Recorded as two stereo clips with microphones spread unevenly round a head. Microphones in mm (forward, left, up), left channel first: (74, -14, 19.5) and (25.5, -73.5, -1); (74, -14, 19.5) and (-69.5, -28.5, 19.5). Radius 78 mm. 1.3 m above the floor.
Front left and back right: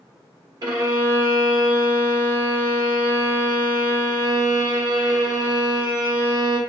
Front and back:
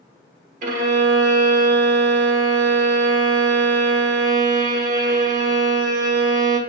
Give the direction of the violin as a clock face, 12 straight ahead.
5 o'clock.